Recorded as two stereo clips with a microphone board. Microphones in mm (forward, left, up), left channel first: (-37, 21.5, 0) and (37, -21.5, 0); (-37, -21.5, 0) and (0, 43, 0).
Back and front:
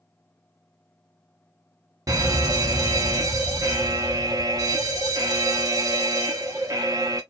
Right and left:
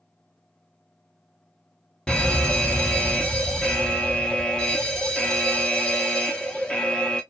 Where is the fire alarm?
50° right, 0.7 m.